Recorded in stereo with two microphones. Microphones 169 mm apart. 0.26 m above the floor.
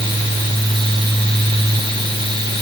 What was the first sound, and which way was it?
Only background noise.